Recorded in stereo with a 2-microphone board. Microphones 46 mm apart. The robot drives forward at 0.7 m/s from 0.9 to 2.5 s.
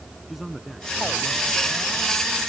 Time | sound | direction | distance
0.3 | a man speaking | centre (ahead or behind) | ?